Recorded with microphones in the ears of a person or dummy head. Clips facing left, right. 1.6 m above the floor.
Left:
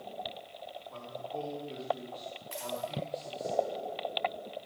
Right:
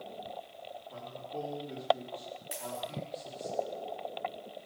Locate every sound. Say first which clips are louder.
0.9 s a man speaking: left 2 dB; 10° right (ahead or behind), 4.5 m
2.5 s a dropped coin: left 3 dB; 20° right (ahead or behind), 4 m